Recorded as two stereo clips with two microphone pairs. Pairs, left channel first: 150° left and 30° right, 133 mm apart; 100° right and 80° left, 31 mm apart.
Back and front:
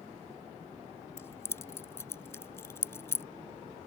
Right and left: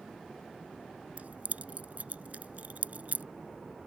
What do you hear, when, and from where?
1.2 s keys jangling: 80° left